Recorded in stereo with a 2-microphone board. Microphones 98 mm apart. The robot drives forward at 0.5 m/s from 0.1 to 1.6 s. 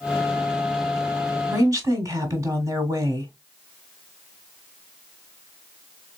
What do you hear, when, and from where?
1.5 s a woman speaking: 35° right (ahead or behind), 1.3 m